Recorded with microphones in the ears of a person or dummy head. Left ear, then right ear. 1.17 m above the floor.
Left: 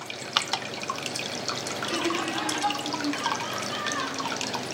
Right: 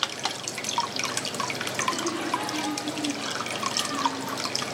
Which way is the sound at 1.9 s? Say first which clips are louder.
Left 2 dB; 80° left.